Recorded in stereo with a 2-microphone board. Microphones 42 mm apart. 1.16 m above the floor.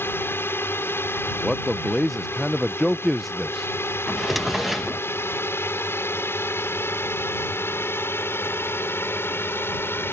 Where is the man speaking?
5° right (ahead or behind).